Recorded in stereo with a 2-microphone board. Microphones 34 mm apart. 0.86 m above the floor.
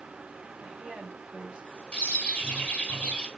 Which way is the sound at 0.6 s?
40° right (ahead or behind).